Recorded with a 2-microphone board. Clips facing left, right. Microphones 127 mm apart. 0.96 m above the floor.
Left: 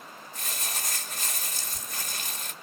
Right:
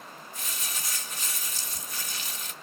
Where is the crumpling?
50° left (ahead or behind), 1.4 m.